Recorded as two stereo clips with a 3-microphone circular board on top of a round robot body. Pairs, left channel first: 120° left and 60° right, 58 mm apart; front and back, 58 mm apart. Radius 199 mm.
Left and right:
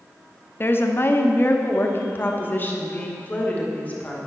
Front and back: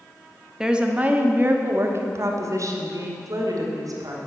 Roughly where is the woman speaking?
Left.